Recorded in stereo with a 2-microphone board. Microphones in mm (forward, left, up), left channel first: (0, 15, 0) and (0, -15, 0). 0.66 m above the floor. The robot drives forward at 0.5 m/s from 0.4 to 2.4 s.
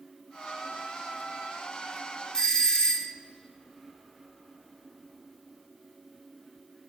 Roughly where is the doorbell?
Left.